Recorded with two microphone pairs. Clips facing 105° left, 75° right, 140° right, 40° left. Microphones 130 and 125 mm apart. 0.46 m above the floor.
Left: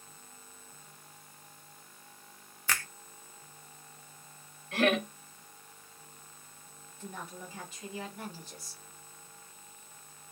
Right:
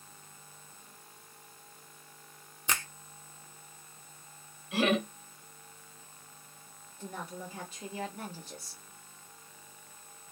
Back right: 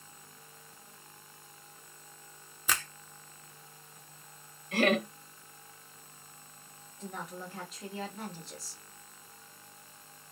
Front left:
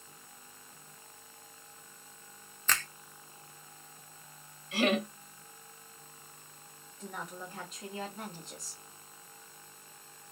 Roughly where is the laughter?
Behind right.